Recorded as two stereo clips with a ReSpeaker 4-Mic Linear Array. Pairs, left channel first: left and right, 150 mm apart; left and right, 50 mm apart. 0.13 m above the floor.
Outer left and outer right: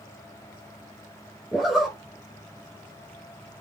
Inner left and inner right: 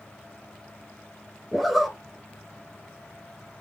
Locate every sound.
1.5 s a zipper: 5° right (ahead or behind), 0.6 m